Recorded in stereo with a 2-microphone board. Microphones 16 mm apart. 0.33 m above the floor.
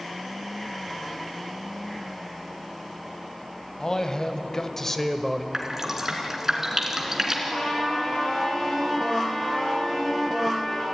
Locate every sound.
3.8 s a man speaking: 40° left (ahead or behind), 2.5 m; by 5.4 s 5° left (ahead or behind), 1.5 m
5.5 s dripping: 25° right (ahead or behind), 3 m
7.5 s a trumpet: 40° left (ahead or behind), 9 m